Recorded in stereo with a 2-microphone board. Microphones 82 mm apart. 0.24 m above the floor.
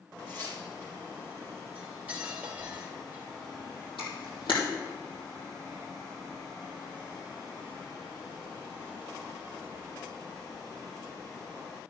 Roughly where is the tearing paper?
Left.